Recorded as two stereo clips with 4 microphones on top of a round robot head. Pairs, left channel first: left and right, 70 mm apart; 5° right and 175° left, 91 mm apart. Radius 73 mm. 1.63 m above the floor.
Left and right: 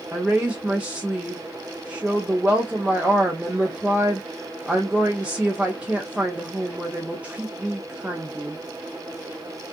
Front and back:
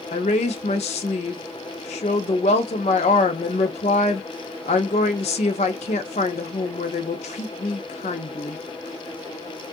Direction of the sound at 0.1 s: 10° right.